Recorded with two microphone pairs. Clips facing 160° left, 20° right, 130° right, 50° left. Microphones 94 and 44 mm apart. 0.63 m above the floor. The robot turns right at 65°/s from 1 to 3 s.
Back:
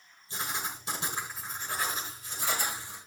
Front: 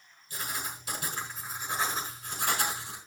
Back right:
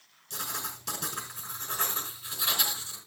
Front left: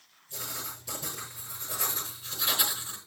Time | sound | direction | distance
0.3 | writing | 135° right | 4.5 m